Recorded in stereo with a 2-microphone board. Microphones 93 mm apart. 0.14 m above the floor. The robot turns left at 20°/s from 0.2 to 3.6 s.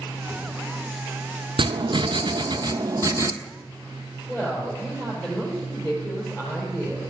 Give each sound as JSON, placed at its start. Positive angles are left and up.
{"t": 1.6, "sound": "writing", "azimuth_deg": -110, "distance_m": 0.7}
{"t": 4.3, "sound": "a woman speaking", "side_deg": 30, "distance_m": 4.0}